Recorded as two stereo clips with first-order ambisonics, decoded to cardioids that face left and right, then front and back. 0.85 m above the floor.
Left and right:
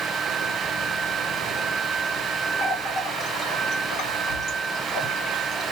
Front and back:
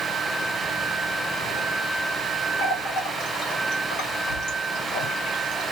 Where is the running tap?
35° left, 1.7 m.